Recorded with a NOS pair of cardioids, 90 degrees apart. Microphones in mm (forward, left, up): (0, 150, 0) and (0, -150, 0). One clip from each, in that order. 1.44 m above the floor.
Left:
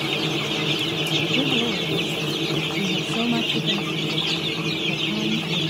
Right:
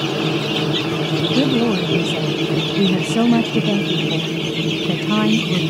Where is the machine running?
45° right.